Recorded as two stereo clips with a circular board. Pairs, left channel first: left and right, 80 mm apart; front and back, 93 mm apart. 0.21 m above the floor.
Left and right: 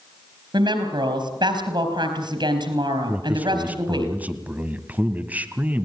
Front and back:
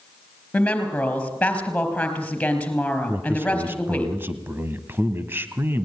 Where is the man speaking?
140° right, 1.2 m.